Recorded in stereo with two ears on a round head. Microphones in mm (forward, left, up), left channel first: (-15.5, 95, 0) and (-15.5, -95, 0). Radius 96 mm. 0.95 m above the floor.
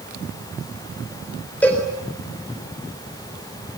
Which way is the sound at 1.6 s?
10° left (ahead or behind).